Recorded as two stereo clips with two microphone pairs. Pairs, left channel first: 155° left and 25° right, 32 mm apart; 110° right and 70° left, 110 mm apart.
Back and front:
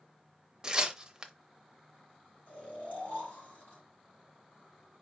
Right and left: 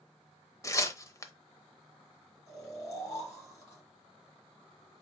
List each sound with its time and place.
0.6 s tearing paper: 75° right, 0.7 m
2.5 s snoring: 165° right, 3 m